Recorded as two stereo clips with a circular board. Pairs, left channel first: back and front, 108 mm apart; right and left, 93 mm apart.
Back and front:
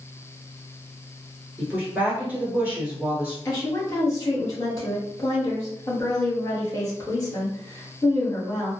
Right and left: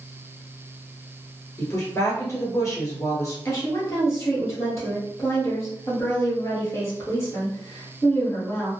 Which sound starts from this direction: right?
A woman speaking, at 1.6 s.